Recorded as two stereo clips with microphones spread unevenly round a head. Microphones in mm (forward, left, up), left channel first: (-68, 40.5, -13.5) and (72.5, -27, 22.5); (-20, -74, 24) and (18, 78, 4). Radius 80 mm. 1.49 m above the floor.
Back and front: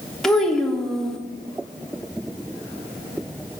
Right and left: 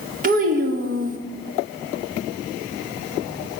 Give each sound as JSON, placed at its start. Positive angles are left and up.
{"t": 0.2, "sound": "a child speaking", "azimuth_deg": 55, "distance_m": 1.1}